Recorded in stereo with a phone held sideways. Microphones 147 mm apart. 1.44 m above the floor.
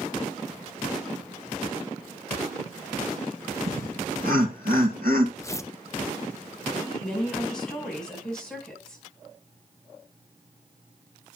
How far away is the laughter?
About 2 m.